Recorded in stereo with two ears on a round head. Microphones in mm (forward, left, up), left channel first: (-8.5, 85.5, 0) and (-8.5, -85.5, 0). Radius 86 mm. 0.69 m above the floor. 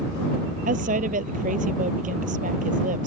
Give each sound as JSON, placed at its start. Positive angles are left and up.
{"t": 0.7, "sound": "a woman speaking", "side_deg": -40}